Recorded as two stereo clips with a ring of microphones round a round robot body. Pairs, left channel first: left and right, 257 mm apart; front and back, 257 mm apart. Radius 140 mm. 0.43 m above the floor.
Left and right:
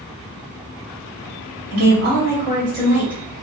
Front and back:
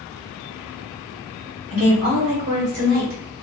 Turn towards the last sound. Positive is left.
turn(degrees=-175)